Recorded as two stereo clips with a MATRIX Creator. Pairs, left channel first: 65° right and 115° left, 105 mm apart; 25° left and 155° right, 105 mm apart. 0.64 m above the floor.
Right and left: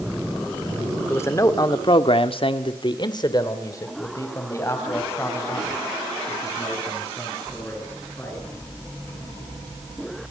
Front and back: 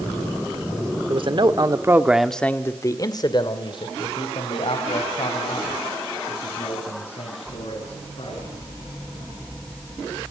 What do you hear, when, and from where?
1.1 s a man speaking: 130° right, 1.9 m; by 8.5 s 5° left, 9.5 m